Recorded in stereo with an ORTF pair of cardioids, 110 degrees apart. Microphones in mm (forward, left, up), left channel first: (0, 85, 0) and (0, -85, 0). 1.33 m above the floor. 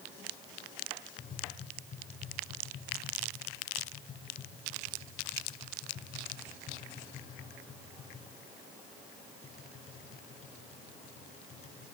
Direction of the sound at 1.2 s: 40° left.